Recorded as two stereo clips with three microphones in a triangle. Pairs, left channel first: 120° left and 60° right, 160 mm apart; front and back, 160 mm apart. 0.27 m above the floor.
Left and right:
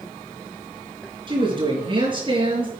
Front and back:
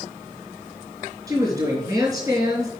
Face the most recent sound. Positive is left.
turn(degrees=-115)